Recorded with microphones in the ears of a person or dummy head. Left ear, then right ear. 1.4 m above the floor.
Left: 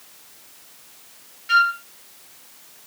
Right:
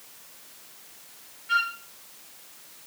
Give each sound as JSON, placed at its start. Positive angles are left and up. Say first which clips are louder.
{"t": 1.5, "sound": "a flute", "louder": "left 8 dB", "side_deg": 40, "distance_m": 1.7}